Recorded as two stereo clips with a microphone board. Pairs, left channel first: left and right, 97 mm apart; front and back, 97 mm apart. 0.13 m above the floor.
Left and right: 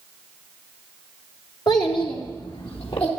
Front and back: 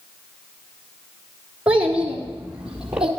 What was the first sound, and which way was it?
A child speaking, 110° left.